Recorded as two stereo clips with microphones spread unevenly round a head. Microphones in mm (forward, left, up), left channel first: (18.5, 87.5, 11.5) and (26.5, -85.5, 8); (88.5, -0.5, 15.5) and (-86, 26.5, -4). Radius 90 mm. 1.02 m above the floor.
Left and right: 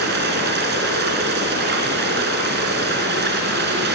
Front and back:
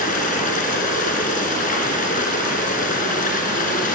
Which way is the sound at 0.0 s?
55° right.